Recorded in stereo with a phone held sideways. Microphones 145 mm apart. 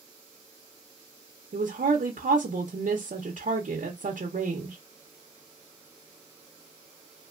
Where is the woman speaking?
70° right (ahead or behind), 0.7 m.